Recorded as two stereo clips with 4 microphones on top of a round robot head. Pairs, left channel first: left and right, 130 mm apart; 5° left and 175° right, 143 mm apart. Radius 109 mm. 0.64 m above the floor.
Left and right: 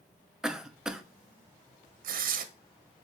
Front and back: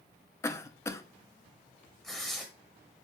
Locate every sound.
0.4 s a cough: 15° right, 0.6 m
2.0 s tearing paper: 80° right, 0.6 m